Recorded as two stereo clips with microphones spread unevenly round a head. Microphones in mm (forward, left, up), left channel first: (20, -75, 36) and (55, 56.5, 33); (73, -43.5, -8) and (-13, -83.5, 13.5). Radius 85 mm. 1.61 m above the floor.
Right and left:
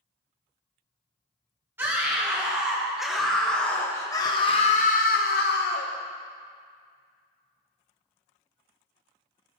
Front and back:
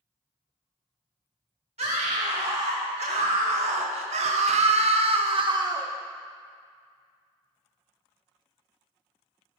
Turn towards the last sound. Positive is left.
turn(degrees=-105)